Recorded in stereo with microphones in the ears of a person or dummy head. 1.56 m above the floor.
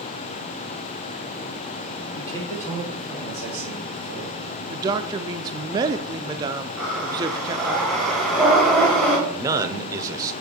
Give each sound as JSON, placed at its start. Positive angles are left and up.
{"t": 2.1, "sound": "a man speaking", "side_deg": 15, "distance_m": 2.5}
{"t": 4.7, "sound": "a woman speaking", "side_deg": -10, "distance_m": 0.6}
{"t": 6.8, "sound": "breathing", "side_deg": -5, "distance_m": 1.7}
{"t": 9.3, "sound": "a man speaking", "side_deg": -10, "distance_m": 0.8}